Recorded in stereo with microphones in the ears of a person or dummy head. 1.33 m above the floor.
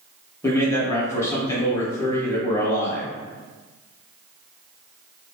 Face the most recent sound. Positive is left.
turn(degrees=15)  # may be behind; listen again after turning